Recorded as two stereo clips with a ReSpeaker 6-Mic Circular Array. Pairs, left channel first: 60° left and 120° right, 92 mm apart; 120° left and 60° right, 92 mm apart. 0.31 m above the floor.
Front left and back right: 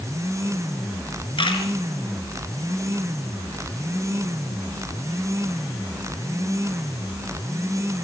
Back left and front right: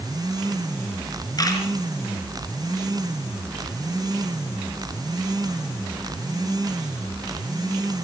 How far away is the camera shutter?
About 5 m.